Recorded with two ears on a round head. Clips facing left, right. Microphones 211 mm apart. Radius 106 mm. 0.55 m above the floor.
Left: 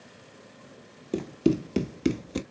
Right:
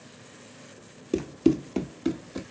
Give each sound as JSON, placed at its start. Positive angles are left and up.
{"t": 1.1, "sound": "running footsteps", "side_deg": -15, "distance_m": 0.6}